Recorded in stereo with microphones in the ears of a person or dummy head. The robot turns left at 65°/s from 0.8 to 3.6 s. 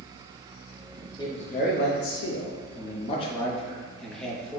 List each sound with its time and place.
1.2 s a man speaking: 160° left, 0.7 m; by 4.6 s 5° left, 0.7 m